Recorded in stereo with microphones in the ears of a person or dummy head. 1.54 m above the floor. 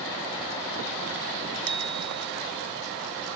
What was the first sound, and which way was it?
A bicycle bell, 85° right.